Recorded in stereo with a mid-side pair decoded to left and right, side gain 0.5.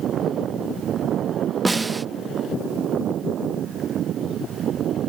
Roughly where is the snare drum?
Ahead.